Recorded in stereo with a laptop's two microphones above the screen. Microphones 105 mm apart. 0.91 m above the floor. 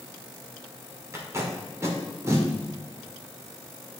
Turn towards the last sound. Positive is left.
turn(degrees=-25)  # may be behind; listen again after turning